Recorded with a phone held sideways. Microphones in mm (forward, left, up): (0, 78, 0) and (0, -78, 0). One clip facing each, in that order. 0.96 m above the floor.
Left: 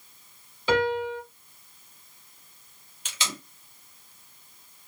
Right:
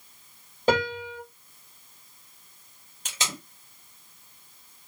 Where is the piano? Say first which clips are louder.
Left 1 dB; 50° right (ahead or behind), 1.4 m.